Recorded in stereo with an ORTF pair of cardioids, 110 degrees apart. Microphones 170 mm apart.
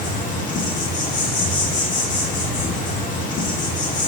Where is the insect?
50° left, 2.5 m.